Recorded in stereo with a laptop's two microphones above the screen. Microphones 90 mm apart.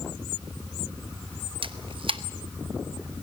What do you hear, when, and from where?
1.6 s a camera shutter: 70° right (ahead or behind), 1.0 m